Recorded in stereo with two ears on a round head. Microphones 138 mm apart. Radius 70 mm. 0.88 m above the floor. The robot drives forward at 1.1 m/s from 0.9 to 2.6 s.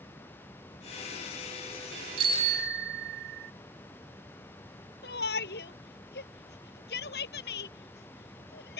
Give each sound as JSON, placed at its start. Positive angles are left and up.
{"t": 2.2, "sound": "a bicycle bell", "side_deg": -35}
{"t": 5.0, "sound": "a shout", "side_deg": 70}